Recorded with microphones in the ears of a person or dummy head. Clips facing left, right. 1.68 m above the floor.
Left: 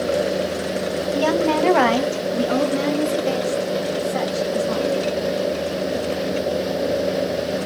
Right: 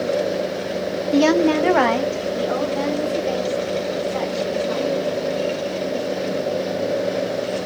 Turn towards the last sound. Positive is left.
turn(degrees=65)  # may be behind; listen again after turning